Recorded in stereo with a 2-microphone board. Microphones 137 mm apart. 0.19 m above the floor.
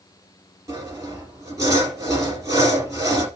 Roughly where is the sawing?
Right.